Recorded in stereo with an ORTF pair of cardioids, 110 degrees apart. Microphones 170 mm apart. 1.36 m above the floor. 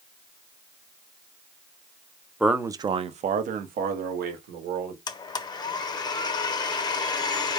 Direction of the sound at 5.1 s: 25° left.